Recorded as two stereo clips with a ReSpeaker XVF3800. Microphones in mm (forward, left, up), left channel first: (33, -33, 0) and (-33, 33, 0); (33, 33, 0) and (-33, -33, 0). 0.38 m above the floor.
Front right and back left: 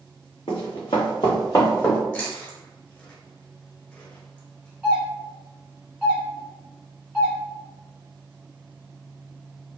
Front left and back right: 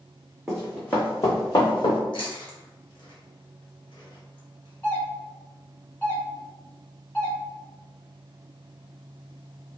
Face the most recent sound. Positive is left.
turn(degrees=75)